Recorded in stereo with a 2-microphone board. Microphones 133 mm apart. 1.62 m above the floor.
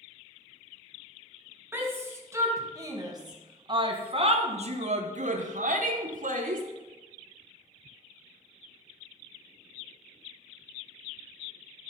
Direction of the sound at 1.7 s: 15° right (ahead or behind).